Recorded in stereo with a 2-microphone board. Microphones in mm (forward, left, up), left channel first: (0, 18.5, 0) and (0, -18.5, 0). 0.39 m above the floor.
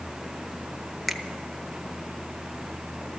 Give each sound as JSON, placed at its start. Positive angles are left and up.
{"t": 1.1, "sound": "a finger snap", "side_deg": 0, "distance_m": 0.8}